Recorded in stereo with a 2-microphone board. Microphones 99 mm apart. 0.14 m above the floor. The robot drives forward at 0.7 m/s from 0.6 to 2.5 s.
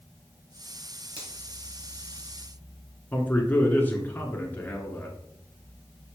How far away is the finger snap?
About 2.5 m.